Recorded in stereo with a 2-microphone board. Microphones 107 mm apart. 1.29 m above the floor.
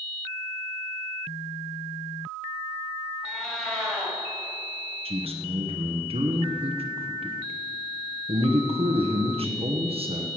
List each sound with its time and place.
3.2 s a cat meowing: 5° left (ahead or behind), 3 m
5.0 s a man speaking: 60° right (ahead or behind), 0.9 m